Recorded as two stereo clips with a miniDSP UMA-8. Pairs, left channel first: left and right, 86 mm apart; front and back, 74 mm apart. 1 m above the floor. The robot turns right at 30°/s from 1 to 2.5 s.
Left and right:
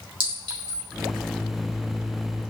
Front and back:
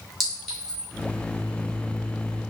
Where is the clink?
90° right, 2 m.